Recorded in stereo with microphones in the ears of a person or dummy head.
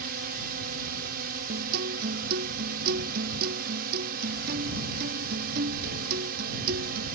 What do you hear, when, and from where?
0.0 s a drone: 55° right (ahead or behind)
1.5 s a guitar: 55° right (ahead or behind)